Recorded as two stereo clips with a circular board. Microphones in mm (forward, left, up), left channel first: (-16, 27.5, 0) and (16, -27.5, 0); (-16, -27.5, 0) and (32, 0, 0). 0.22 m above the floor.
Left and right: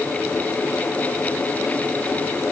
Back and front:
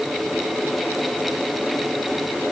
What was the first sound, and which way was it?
Only background noise.